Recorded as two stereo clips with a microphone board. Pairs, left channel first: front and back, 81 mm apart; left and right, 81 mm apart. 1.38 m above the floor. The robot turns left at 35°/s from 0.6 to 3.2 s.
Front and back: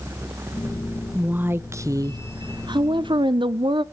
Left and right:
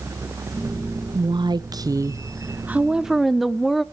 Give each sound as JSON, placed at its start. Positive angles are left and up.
{"t": 1.1, "sound": "a woman speaking", "azimuth_deg": -105, "distance_m": 0.7}